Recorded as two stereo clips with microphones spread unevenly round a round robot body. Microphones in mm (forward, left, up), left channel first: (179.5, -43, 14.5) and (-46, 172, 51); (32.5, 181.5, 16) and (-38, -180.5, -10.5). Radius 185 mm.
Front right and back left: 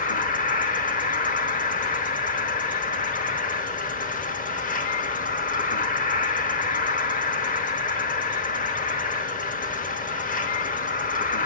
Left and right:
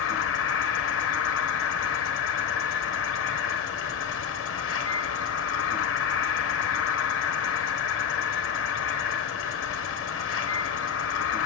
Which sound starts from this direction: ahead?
An insect, at 0.0 s.